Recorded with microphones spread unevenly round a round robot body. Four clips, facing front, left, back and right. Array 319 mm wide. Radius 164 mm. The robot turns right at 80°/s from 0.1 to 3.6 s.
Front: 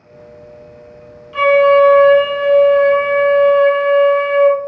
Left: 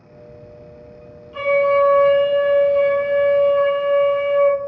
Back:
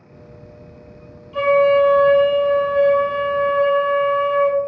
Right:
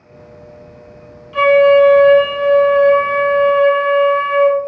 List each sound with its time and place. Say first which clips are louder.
1.3 s a flute: right 7 dB, front 4 dB; 45° right, 1.5 m; by 4.6 s 140° left, 1.5 m